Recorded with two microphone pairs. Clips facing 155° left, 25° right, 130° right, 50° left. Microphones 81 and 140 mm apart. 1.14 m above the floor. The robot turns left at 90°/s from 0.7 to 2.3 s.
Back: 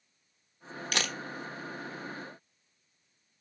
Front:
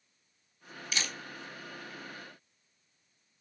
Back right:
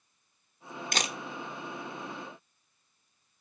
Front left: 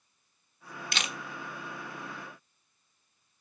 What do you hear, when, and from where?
0.9 s a camera shutter: 175° right, 1.2 m; by 1.2 s 160° left, 1.2 m